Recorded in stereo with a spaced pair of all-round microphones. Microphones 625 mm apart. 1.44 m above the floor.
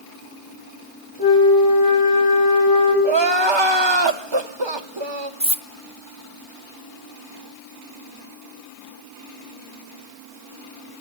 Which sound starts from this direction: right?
Crying, at 3.0 s.